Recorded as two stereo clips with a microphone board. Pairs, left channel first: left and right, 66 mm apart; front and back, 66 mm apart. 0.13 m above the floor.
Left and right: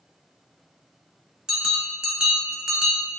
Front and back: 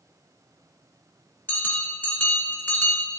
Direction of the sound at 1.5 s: 25° right.